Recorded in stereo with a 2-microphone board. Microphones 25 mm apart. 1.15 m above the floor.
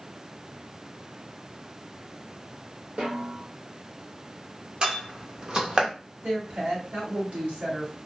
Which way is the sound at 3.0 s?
55° right (ahead or behind).